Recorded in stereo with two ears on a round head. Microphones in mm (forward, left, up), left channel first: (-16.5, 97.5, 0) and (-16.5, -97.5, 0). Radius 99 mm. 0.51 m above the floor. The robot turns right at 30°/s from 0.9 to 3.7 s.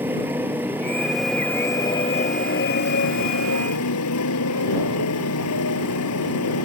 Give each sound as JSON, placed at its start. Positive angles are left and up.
{"t": 0.0, "sound": "a motorcycle", "azimuth_deg": -10}